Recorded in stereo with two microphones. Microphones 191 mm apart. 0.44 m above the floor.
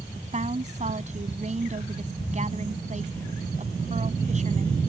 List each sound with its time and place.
0.1 s a woman speaking: 40° right (ahead or behind)